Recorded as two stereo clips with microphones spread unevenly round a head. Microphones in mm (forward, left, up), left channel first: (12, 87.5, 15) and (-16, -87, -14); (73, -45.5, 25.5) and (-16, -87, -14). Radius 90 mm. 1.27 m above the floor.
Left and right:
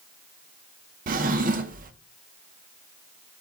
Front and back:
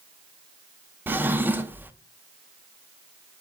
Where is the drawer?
70° right, 0.8 m.